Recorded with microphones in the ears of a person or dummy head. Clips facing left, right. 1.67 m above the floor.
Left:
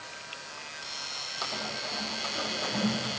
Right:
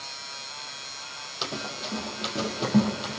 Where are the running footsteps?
45° right (ahead or behind), 4 m; by 3.2 s 60° right (ahead or behind), 3.5 m.